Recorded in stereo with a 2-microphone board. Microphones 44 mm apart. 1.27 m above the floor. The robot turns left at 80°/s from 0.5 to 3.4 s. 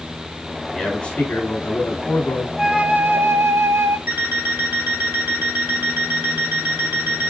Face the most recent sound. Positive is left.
turn(degrees=-65)  # may be behind; listen again after turning